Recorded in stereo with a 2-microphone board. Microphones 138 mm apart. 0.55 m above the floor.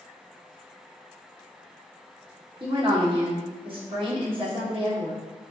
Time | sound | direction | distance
2.6 | a woman speaking | 40° right (ahead or behind) | 1.4 m